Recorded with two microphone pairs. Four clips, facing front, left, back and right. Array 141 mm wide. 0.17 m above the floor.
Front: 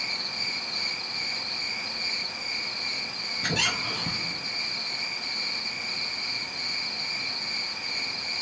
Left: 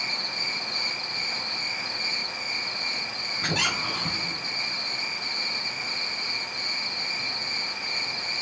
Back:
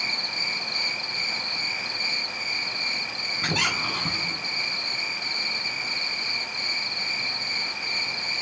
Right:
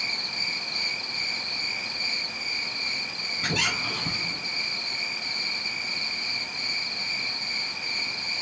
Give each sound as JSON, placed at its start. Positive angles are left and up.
{"t": 0.0, "sound": "an insect", "azimuth_deg": 150, "distance_m": 5.0}
{"t": 3.4, "sound": "a squeak", "azimuth_deg": 150, "distance_m": 5.0}